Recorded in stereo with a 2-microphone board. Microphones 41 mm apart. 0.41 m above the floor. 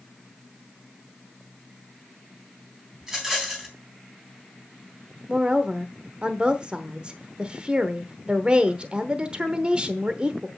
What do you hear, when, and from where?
3.0 s a rattle: 20° right (ahead or behind), 3.5 m
5.3 s a woman speaking: 25° right (ahead or behind), 1.0 m